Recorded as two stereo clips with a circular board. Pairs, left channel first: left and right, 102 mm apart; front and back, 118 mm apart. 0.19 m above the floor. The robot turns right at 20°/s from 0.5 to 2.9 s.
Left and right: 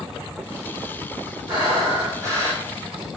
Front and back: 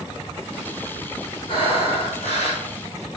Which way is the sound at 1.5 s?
45° right.